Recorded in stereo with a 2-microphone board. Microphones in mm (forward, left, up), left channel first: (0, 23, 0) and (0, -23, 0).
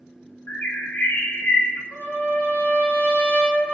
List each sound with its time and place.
0.5 s a bird: 45° left (ahead or behind), 0.6 m
1.9 s a trumpet: 30° left (ahead or behind), 0.6 m